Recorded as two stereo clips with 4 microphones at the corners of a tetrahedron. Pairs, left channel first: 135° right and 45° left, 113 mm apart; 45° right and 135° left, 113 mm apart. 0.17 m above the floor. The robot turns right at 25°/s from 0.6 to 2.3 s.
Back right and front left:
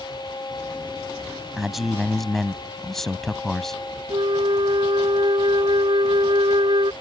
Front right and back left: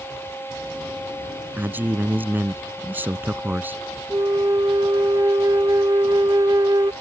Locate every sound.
1.6 s a man speaking: 125° left; by 3.8 s 145° left
4.1 s a flute: 80° left